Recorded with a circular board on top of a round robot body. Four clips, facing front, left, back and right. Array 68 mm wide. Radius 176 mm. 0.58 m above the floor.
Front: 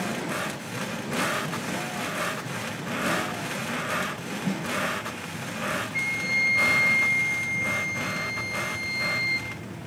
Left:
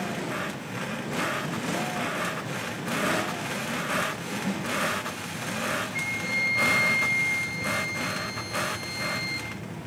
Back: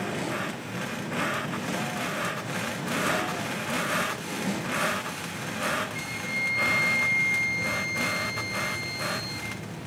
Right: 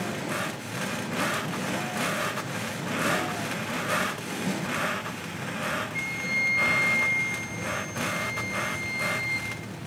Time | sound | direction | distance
4.5 | a snare drum | 20° right | 6 m
5.9 | a flute | 10° right | 1.4 m